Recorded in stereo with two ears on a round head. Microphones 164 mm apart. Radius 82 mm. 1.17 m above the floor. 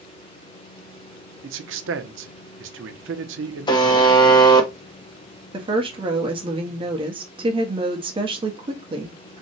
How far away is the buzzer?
About 0.6 m.